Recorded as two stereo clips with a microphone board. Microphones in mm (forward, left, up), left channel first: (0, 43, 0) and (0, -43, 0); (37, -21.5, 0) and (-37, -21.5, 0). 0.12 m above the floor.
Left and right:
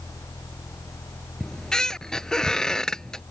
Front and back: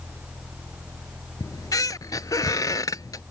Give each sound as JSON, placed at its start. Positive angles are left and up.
{"t": 1.4, "sound": "a squeak", "azimuth_deg": 10}